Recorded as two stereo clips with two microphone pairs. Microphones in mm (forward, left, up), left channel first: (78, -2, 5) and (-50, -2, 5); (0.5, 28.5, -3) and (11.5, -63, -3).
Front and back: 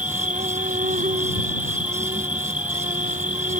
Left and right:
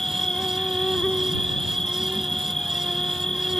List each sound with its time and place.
0.0 s an insect: 175° right